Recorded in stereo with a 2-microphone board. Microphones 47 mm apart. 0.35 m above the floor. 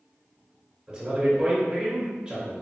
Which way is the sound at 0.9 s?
20° right (ahead or behind).